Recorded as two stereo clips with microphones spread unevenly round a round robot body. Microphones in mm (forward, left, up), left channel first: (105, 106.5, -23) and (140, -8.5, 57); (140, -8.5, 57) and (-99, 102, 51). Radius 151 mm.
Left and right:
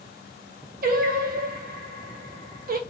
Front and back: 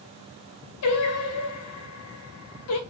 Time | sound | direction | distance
0.8 | singing | 55° right | 0.6 m